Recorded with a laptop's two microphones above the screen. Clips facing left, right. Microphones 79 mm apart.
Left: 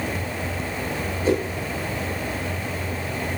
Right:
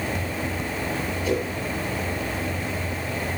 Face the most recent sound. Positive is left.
turn(degrees=35)  # may be behind; listen again after turning